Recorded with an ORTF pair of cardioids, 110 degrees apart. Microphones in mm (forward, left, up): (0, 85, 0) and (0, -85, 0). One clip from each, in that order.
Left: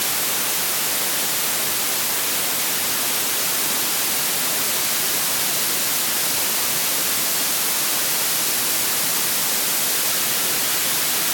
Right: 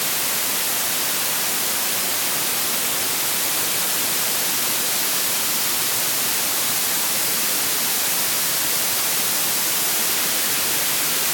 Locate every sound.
Only background noise.